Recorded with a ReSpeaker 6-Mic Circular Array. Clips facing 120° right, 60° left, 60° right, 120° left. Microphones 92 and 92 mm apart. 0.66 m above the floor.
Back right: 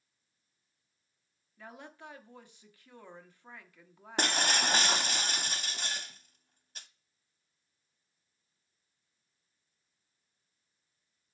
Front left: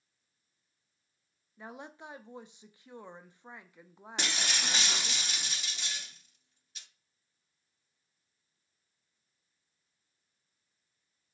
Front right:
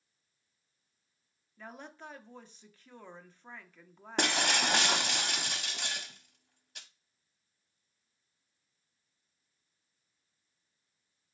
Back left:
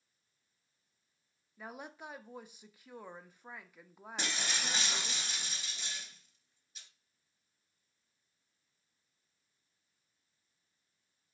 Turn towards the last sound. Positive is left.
turn(degrees=-80)